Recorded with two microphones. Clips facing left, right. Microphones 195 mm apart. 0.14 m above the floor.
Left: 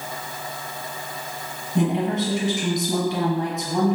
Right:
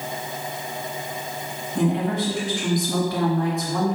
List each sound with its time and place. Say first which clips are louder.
1.8 s a woman speaking: left 1 dB; 20° left (ahead or behind), 1.9 m